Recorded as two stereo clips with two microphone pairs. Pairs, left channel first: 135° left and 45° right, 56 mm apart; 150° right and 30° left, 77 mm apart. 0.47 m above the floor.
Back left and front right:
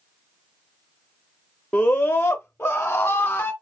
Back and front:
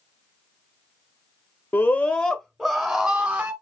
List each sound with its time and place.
1.7 s a scream: straight behind, 0.8 m; by 3.5 s 85° left, 1.4 m